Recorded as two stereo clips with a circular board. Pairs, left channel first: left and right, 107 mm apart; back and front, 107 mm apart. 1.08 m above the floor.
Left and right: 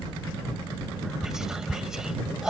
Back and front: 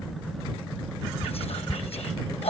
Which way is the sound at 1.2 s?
175° right.